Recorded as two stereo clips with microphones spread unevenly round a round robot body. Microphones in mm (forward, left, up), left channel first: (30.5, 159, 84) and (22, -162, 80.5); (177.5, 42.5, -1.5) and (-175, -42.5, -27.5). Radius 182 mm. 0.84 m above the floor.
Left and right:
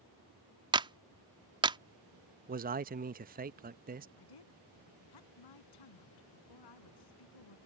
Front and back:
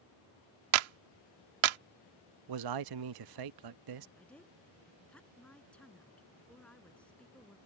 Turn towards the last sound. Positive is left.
turn(degrees=100)